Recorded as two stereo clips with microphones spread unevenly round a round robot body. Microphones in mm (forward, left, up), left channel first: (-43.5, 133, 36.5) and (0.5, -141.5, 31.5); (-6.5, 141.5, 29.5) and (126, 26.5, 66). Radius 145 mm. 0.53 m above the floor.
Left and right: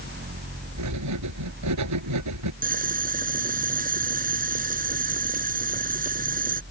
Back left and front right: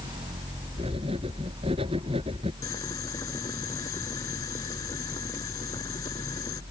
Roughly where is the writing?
Right.